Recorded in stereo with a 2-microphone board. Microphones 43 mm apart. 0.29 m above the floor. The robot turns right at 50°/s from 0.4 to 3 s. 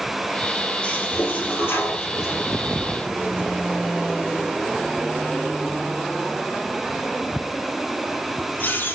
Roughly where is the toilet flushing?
Left.